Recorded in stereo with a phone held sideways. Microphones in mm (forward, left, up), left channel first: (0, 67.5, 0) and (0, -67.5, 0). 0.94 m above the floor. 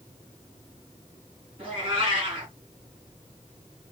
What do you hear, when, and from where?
1.6 s a cat meowing: 40° right (ahead or behind), 3 m